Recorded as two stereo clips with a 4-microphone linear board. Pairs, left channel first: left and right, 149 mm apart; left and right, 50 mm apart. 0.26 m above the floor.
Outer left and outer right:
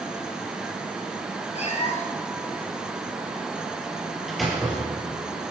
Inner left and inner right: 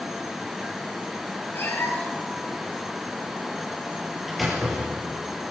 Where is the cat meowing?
50° left (ahead or behind), 3 m.